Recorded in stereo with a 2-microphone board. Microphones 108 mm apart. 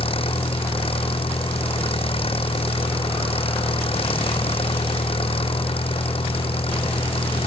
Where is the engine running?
60° left (ahead or behind).